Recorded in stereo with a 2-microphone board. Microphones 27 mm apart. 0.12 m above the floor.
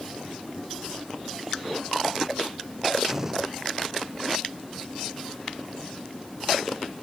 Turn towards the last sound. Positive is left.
turn(degrees=-15)  # may be behind; listen again after turning